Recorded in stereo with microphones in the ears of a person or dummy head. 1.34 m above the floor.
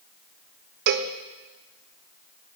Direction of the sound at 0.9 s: 55° right (ahead or behind).